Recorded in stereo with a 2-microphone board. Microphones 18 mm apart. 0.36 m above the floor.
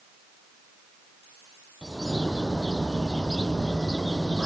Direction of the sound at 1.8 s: 15° left (ahead or behind).